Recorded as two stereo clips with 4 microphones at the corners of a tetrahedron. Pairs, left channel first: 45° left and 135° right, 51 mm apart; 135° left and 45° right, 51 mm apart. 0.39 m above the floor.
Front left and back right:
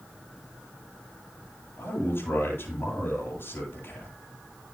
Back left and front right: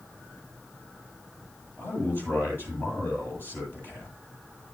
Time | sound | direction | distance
1.8 | a man speaking | 90° left | 9 m